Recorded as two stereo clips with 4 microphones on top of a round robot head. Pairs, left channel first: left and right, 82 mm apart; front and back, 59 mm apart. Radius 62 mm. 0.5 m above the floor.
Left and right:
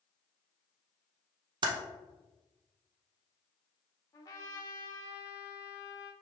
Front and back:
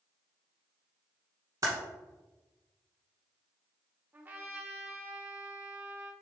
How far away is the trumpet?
About 1.1 m.